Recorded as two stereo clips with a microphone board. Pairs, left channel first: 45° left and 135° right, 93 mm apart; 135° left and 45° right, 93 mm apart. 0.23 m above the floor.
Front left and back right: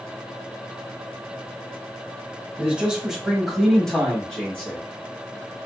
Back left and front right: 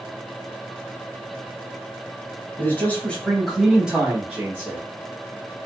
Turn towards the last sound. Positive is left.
turn(degrees=-15)